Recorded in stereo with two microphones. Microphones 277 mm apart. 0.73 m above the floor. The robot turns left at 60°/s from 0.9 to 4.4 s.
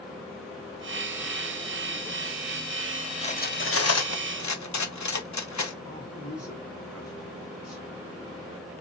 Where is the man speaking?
60° left (ahead or behind), 2.5 m.